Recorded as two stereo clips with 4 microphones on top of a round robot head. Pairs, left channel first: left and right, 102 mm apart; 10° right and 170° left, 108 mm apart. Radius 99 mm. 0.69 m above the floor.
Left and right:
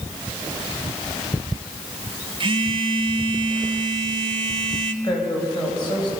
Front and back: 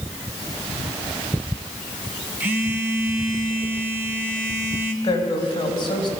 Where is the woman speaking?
35° left, 4.5 m.